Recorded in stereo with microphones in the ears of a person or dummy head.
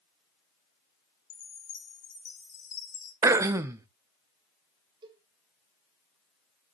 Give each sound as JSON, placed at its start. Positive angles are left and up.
{"t": 1.3, "sound": "a chime", "side_deg": 45, "distance_m": 3.0}
{"t": 3.2, "sound": "throat clearing", "side_deg": -15, "distance_m": 0.5}
{"t": 5.0, "sound": "a cowbell", "side_deg": -30, "distance_m": 1.9}